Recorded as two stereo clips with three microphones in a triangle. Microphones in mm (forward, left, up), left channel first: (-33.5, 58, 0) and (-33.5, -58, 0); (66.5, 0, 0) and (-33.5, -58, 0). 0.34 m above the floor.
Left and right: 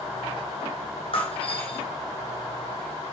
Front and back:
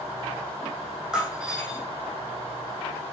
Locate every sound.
1.1 s breaking glass: 125° left, 3.5 m